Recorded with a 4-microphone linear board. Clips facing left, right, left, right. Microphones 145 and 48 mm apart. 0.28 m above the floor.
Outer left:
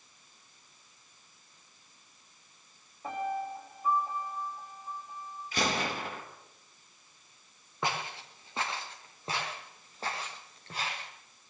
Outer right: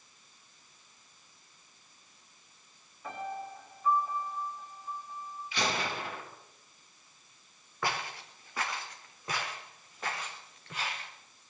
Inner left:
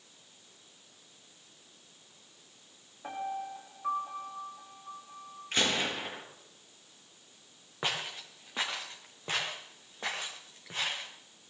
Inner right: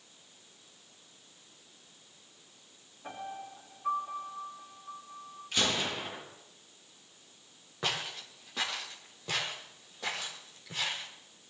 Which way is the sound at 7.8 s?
20° left (ahead or behind).